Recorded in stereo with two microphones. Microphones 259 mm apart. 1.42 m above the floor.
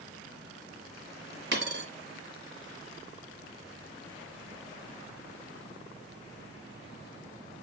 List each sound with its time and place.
1.5 s a dropped coin: 45° right (ahead or behind), 1.8 m